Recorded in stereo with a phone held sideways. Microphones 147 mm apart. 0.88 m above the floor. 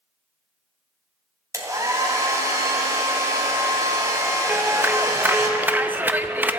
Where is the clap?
15° right (ahead or behind), 0.5 m.